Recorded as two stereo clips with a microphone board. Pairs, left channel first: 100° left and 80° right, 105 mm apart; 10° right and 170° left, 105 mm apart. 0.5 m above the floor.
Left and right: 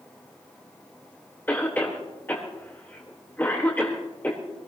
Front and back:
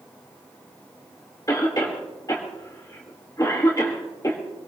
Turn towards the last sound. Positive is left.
turn(degrees=35)